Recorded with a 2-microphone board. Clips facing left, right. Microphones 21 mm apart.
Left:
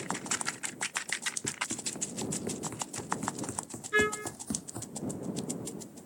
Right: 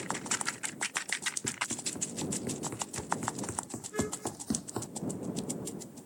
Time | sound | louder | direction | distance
1.4 | running footsteps | even | 5° left (ahead or behind) | ?
3.9 | a trumpet | left 8 dB | 65° left (ahead or behind) | ?